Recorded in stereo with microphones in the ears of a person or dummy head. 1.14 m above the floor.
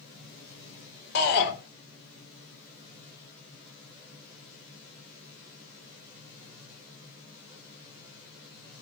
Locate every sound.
1.1 s a shout: 60° left (ahead or behind), 4 m